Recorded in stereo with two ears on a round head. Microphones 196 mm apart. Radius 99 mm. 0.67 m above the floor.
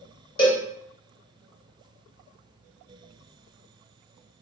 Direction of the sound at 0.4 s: 25° left (ahead or behind).